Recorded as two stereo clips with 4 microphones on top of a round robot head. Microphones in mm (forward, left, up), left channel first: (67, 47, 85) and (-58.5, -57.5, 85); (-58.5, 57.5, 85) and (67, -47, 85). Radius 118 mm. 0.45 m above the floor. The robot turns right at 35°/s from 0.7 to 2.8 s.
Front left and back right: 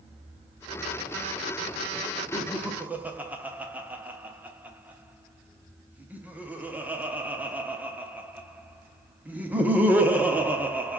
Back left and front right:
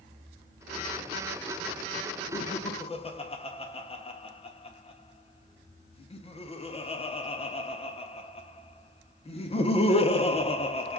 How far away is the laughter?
About 0.9 m.